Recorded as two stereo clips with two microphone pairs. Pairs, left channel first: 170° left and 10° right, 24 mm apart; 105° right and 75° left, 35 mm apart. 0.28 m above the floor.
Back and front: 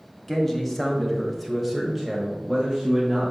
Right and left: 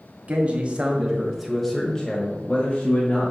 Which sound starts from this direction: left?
A man speaking, at 0.3 s.